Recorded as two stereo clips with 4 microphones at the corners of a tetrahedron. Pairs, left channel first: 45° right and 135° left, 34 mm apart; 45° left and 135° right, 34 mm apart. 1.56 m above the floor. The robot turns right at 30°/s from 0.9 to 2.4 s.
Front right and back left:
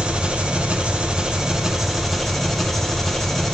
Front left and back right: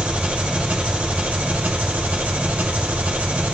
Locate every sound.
0.0 s an engine running: 175° right, 0.8 m; by 3.5 s 130° right, 0.8 m